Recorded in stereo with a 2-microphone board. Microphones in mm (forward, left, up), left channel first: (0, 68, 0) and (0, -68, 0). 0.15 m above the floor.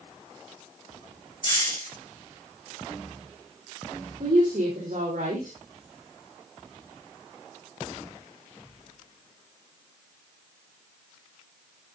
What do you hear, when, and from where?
1.4 s a hiss: 35° left (ahead or behind), 5.5 m
4.2 s a woman speaking: 75° right (ahead or behind), 5 m